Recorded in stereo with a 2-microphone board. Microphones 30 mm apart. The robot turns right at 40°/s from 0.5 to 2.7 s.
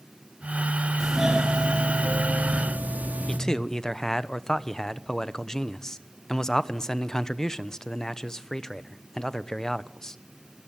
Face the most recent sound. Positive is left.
turn(degrees=20)  # may be behind; listen again after turning